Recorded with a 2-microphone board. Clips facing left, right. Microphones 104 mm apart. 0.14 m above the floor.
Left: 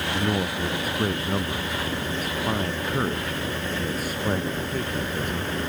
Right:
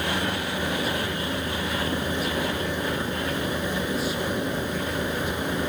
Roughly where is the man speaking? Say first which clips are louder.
Left 2 dB; left.